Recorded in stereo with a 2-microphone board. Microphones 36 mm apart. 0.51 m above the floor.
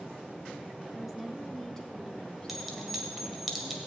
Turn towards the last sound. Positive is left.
turn(degrees=-5)  # may be behind; listen again after turning